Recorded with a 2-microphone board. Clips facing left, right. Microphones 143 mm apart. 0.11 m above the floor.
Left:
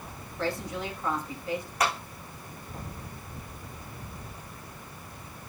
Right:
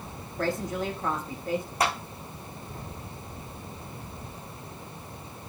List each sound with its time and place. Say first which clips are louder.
0.4 s a woman speaking: right 3 dB; 45° right (ahead or behind), 5 m
1.8 s a clap: even; 30° right (ahead or behind), 5.5 m